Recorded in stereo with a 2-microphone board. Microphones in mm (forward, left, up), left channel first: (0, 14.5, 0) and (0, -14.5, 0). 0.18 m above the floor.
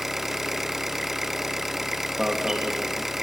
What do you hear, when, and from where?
0.0 s an engine running: 10° right (ahead or behind), 1.0 m
2.2 s an alarm: 20° right (ahead or behind), 3 m